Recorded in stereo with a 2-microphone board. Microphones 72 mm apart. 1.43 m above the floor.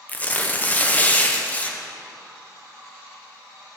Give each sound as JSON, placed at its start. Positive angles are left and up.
{"t": 0.1, "sound": "tearing paper", "side_deg": 25, "distance_m": 0.8}